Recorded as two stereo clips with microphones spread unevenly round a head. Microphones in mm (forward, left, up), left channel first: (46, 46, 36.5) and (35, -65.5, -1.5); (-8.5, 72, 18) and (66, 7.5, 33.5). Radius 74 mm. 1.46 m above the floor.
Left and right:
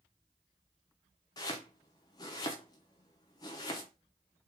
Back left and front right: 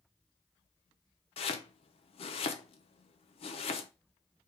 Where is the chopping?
125° left, 0.5 m.